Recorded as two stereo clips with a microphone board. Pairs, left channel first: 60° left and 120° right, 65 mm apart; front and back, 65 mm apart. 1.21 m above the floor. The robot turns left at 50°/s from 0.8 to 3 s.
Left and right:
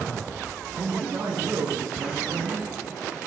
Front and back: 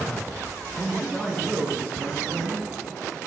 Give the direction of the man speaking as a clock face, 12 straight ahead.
3 o'clock.